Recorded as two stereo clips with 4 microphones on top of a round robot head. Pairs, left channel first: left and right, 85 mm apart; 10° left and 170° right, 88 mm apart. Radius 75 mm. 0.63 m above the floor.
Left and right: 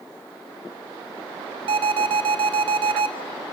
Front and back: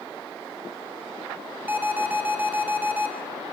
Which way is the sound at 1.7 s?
100° right.